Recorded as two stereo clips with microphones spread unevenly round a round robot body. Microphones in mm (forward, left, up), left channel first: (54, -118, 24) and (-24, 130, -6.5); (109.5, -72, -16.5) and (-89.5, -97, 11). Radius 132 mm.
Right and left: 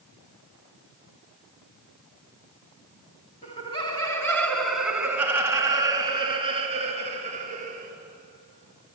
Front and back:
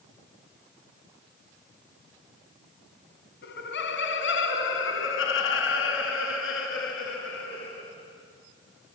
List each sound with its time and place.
3.4 s laughter: 5° right, 3 m; by 7.9 s 45° left, 6 m